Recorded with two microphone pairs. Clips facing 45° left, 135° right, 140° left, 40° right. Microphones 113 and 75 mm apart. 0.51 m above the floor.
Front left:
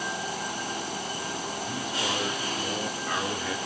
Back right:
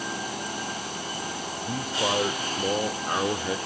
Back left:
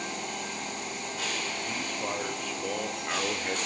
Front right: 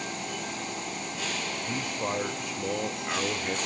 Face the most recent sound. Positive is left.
turn(degrees=-145)